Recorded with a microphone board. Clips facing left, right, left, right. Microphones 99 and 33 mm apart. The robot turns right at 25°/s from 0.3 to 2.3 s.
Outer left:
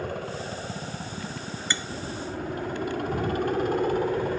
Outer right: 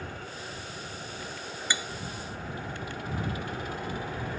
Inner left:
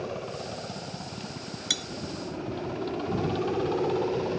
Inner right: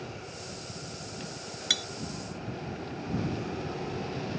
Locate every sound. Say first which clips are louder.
0.0 s a helicopter: outer left 8 dB, inner left 7 dB; 70° left; by 4.4 s 120° left
1.7 s cutlery clinking: even, inner right 2 dB; 10° right (ahead or behind)